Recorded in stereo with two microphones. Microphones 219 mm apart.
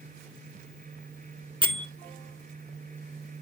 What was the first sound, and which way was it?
A bell, 25° right (ahead or behind).